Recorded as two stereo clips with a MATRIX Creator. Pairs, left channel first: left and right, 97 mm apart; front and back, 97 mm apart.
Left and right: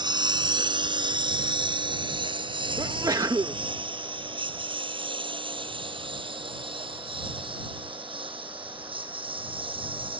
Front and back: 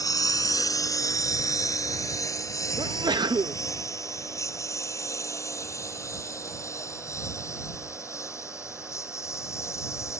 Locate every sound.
0.0 s a lawn mower: 50° right; by 10.2 s 60° right
2.8 s a sneeze: 140° right